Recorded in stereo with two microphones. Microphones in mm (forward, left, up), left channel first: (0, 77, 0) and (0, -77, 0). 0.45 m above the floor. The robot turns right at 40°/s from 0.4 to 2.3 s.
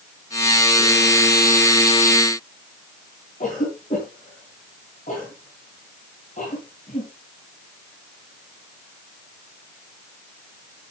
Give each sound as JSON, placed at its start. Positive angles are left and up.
{"t": 3.4, "sound": "a cough", "side_deg": 55, "distance_m": 5.0}